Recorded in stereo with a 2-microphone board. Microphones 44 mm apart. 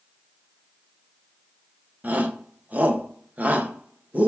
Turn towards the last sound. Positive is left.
turn(degrees=-40)  # may be behind; listen again after turning